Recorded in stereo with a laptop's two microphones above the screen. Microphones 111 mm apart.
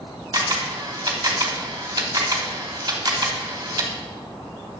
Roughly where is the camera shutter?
Right.